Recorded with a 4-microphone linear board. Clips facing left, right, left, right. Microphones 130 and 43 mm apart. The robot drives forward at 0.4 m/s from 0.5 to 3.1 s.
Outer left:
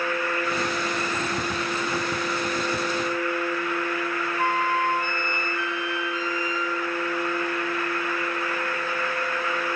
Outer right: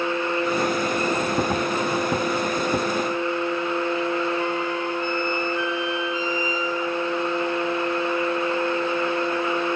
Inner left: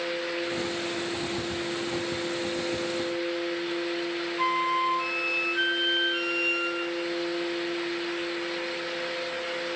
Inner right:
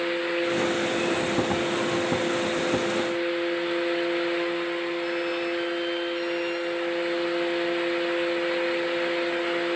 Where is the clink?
No clink in this recording.